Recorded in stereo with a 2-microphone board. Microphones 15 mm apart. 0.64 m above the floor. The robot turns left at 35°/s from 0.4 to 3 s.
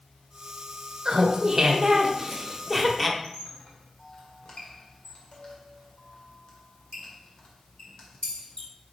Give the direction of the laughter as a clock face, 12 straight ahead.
4 o'clock.